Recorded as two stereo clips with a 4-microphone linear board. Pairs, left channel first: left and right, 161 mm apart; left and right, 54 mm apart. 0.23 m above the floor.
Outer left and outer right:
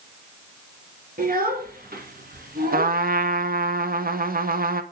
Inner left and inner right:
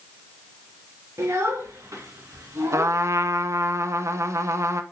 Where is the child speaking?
65° right (ahead or behind), 2.5 m.